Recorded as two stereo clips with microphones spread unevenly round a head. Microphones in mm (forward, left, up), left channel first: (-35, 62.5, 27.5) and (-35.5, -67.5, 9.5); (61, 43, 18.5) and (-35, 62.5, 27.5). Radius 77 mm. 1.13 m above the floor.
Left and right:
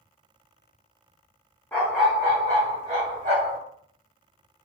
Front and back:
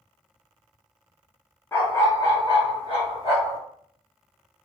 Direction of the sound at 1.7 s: 40° left.